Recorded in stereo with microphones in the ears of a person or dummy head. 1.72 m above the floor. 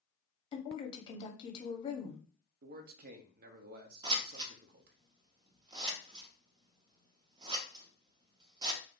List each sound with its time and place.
0.5 s a woman speaking: 30° left (ahead or behind), 0.8 m
2.6 s a man speaking: 55° right (ahead or behind), 0.5 m
4.0 s scissors: 25° right (ahead or behind), 0.5 m